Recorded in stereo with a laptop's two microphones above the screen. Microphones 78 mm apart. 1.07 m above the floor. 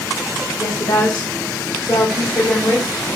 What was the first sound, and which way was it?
A woman speaking, 45° left (ahead or behind).